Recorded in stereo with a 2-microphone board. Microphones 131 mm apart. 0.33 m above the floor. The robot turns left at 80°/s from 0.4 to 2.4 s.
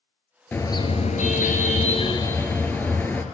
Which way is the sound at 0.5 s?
165° left.